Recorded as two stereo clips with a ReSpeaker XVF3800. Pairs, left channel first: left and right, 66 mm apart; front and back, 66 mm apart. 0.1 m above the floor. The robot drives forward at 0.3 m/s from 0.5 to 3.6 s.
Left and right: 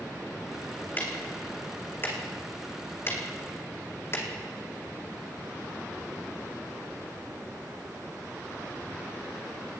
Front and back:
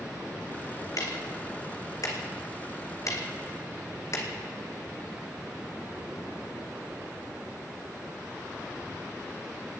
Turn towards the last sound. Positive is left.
turn(degrees=40)